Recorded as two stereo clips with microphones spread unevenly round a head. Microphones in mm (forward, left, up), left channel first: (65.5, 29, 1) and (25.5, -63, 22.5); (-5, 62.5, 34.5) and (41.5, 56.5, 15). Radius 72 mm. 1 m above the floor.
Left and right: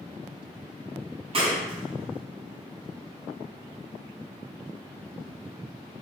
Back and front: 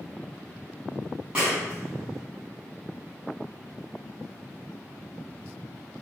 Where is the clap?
85° right, 7 m.